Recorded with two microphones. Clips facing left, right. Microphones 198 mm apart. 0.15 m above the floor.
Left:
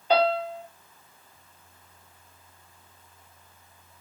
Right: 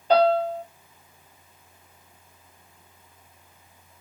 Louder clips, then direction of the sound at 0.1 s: Right 4 dB; 40° right (ahead or behind).